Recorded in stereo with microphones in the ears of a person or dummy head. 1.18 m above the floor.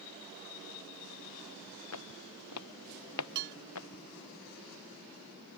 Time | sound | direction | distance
1.9 | footsteps | 85° left | ?
3.4 | dishes clattering | 60° right (ahead or behind) | ?